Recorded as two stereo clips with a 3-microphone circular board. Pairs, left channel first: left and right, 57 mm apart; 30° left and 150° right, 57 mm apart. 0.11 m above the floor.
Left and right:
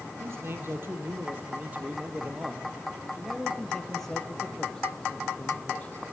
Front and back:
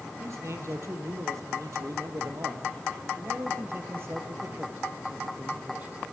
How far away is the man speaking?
About 3 m.